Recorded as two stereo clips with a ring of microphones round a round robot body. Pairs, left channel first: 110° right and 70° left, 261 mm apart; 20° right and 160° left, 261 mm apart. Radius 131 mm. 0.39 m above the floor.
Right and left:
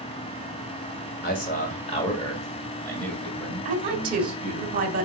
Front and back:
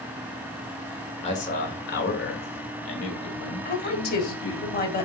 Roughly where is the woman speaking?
Ahead.